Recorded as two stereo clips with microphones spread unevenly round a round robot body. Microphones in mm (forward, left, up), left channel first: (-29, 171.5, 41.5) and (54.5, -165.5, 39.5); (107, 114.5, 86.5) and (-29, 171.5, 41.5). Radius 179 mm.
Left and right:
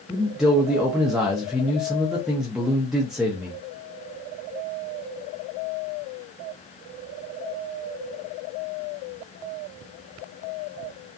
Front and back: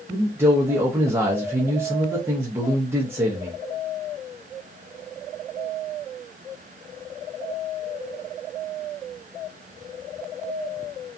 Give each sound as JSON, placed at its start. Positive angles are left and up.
{"t": 0.1, "sound": "a man speaking", "azimuth_deg": -165, "distance_m": 0.6}